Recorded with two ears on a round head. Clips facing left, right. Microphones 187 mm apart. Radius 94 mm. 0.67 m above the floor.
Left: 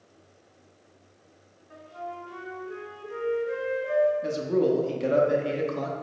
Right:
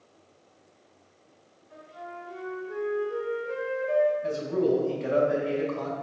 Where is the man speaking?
55° left (ahead or behind), 0.8 m.